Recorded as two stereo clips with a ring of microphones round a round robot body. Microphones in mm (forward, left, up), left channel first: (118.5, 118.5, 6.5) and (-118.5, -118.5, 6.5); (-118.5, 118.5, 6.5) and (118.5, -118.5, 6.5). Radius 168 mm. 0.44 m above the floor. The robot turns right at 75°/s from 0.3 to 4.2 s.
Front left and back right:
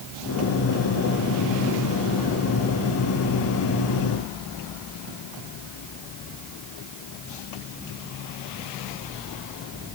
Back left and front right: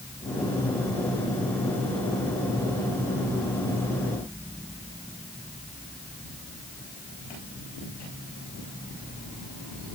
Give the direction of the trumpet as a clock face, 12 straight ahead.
I don't hear a trumpet.